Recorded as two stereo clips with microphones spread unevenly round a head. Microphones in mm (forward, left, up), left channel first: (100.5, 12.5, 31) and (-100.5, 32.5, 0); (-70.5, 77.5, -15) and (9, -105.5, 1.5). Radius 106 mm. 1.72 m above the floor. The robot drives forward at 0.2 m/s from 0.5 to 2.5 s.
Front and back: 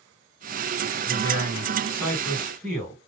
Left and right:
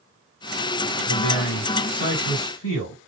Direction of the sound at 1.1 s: 65° left.